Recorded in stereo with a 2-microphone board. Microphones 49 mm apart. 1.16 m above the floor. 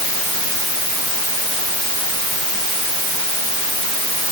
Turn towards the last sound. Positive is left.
No sound to turn to.